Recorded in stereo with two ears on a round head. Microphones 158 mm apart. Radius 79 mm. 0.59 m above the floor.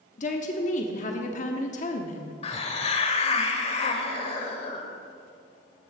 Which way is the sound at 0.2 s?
45° left (ahead or behind).